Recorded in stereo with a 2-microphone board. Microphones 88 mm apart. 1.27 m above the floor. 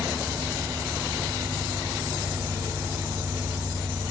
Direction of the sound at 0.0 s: 10° left (ahead or behind).